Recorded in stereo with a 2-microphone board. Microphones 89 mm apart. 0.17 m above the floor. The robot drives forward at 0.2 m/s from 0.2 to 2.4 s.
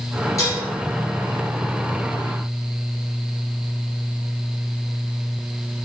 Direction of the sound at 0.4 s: 35° left (ahead or behind).